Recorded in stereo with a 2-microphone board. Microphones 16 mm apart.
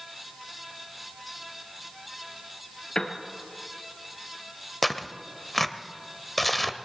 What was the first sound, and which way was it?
A piano, 45° left (ahead or behind).